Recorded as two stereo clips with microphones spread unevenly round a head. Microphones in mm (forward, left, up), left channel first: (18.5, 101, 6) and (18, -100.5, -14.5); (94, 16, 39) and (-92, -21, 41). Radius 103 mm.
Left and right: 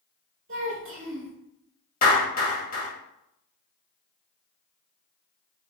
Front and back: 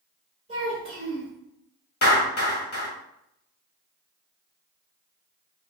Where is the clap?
50° left, 1.7 m.